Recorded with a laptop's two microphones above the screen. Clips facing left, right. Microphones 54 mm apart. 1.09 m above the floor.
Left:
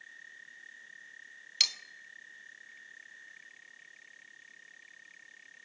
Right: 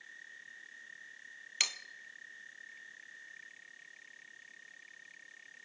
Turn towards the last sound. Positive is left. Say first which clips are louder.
# left 1 dB
turn(degrees=-20)  # may be behind; listen again after turning